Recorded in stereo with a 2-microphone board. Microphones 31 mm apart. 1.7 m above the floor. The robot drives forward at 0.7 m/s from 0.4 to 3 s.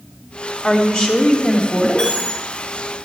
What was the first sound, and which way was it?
A woman speaking, 40° left (ahead or behind).